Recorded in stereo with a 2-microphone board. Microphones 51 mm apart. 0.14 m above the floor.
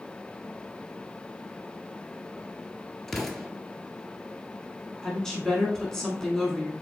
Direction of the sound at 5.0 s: 10° left (ahead or behind).